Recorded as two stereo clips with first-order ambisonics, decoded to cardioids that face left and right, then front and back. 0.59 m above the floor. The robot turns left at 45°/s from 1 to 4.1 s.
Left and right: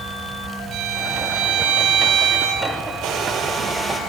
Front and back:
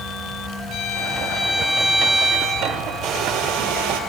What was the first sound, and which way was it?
A violin, 50° right.